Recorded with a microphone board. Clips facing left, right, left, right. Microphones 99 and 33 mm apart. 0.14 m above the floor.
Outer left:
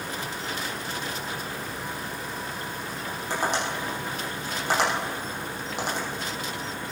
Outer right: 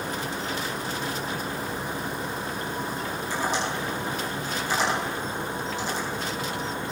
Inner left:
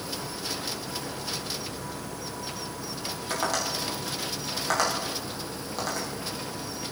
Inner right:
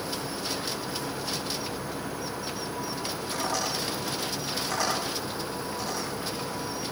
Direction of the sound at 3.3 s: 70° left (ahead or behind).